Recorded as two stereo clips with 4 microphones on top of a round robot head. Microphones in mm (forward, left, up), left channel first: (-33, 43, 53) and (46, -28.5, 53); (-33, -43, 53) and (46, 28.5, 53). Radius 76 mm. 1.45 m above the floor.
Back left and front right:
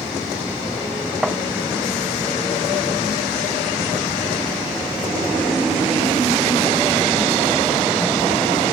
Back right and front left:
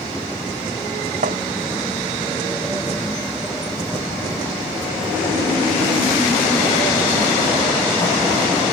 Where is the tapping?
45° left.